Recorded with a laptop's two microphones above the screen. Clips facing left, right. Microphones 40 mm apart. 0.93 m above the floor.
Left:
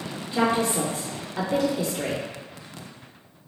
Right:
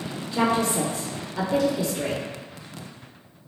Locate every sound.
0.3 s a woman speaking: 35° left (ahead or behind), 1.3 m